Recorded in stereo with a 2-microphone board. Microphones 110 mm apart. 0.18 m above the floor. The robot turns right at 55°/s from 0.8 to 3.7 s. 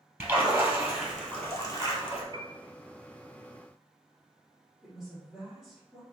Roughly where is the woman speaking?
Centre.